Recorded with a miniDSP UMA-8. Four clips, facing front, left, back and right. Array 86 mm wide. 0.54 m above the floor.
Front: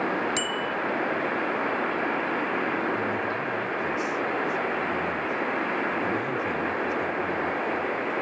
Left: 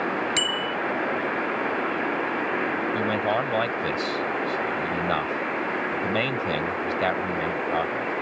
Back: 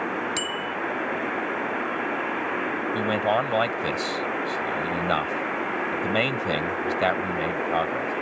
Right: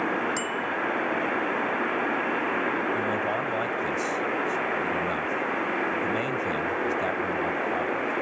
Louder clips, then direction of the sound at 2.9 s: Left 3 dB, back 5 dB; 160° left.